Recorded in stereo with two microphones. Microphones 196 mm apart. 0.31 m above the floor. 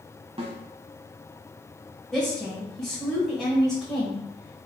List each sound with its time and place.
0.4 s a snare drum: 30° right (ahead or behind), 0.6 m
2.1 s a woman speaking: centre (ahead or behind), 1.3 m